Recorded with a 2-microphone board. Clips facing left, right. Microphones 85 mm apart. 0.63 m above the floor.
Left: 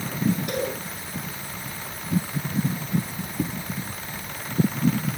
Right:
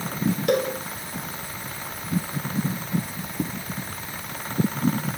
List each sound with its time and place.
0.5 s a cowbell: 75° right (ahead or behind), 6 m